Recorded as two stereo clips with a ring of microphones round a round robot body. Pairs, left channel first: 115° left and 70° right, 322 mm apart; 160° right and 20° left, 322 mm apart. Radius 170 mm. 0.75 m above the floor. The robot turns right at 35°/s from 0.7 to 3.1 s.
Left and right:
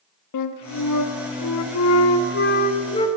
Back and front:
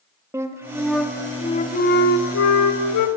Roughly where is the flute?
Left.